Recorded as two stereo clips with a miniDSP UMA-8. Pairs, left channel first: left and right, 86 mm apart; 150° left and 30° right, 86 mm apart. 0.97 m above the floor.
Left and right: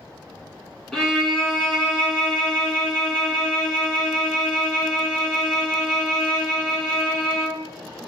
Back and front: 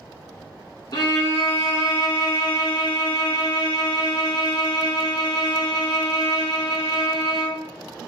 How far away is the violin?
About 1.3 m.